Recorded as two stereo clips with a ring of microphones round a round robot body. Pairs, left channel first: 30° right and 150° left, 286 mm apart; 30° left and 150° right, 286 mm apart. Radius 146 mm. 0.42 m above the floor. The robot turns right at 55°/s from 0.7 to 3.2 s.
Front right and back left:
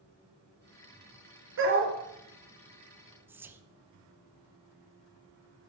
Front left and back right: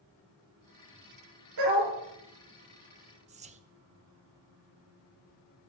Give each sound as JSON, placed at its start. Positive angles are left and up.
{"t": 1.6, "sound": "a dog barking", "azimuth_deg": -160, "distance_m": 4.0}
{"t": 3.3, "sound": "whispering", "azimuth_deg": -140, "distance_m": 0.9}